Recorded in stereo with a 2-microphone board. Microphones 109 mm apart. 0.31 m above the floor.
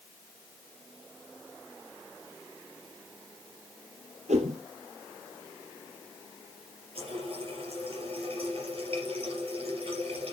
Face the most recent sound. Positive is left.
turn(degrees=-55)  # may be behind; listen again after turning